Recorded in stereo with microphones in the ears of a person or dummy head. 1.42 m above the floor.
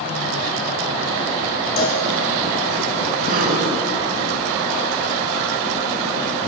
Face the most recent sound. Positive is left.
turn(degrees=-50)  # may be behind; listen again after turning